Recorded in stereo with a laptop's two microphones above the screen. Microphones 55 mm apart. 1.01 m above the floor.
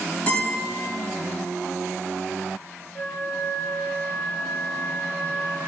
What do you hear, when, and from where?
0.3 s a guitar: 20° left (ahead or behind), 3 m
3.0 s a flute: 35° left (ahead or behind), 1.4 m